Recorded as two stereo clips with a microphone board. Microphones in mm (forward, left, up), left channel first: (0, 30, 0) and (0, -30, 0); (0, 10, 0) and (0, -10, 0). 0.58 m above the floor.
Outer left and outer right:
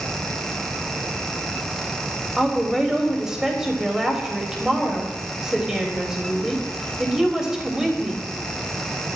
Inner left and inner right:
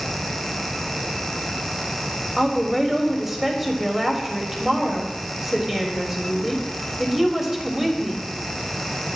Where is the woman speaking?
10° right (ahead or behind), 3 m.